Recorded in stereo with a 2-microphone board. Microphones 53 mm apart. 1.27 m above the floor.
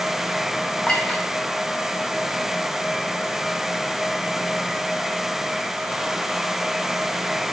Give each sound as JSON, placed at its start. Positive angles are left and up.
{"t": 0.9, "sound": "a clink", "side_deg": 15, "distance_m": 0.8}